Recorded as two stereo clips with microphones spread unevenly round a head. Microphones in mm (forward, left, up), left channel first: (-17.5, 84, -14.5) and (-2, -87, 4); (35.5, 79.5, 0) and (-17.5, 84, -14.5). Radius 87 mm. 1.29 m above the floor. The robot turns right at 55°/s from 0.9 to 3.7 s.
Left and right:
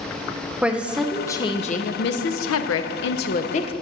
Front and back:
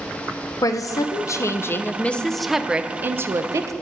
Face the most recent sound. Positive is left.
turn(degrees=155)